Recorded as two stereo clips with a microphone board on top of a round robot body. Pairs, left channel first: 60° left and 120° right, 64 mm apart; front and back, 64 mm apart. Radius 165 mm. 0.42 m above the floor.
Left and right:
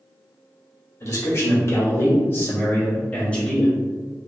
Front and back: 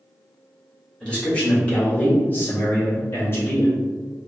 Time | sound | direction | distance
1.0 | a man speaking | 70° left | 1.7 m